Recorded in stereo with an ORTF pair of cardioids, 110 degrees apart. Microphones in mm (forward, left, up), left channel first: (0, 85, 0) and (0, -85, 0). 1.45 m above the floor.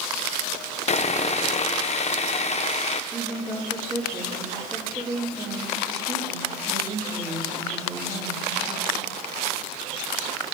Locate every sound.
0.9 s sawing: 40° left, 0.9 m
3.1 s a woman speaking: 20° right, 4 m